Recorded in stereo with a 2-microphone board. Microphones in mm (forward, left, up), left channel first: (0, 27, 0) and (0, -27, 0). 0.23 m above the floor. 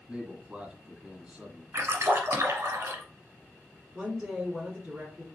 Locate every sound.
0.1 s a man speaking: 15° right (ahead or behind), 1.5 m
1.7 s a splash: 55° right (ahead or behind), 1.3 m
3.9 s a woman speaking: 15° right (ahead or behind), 2.0 m